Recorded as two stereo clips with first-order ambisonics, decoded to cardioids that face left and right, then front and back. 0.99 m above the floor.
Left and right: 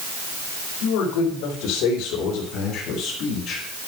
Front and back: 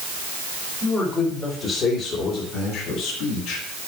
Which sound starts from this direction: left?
A man speaking, at 0.8 s.